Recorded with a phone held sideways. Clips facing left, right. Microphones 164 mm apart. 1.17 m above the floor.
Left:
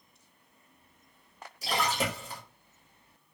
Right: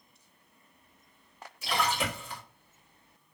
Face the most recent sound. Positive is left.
turn(degrees=40)  # may be behind; listen again after turning